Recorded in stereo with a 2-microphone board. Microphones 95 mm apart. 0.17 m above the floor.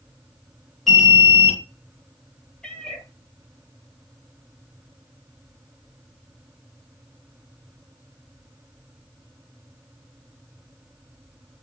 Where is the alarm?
Centre (ahead or behind), 3 m.